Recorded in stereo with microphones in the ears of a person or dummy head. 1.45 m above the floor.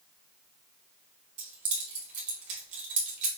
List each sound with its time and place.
1.4 s keys jangling: 45° right (ahead or behind), 1.5 m